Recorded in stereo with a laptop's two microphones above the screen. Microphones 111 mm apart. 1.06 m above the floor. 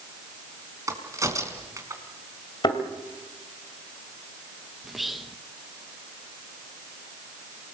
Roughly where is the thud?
Left.